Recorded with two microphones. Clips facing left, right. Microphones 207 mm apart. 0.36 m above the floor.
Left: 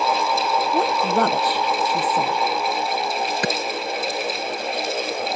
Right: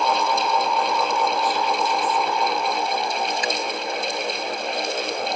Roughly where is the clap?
Left.